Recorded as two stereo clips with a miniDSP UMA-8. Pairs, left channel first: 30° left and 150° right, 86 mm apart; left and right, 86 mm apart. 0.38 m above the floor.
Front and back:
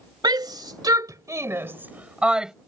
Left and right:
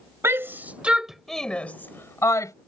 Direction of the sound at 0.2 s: 140° right.